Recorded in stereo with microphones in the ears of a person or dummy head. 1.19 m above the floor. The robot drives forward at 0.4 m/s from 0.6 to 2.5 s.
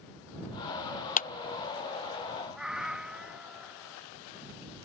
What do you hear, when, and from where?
1.2 s a clap: 40° left (ahead or behind)
2.5 s a cat meowing: 5° right (ahead or behind)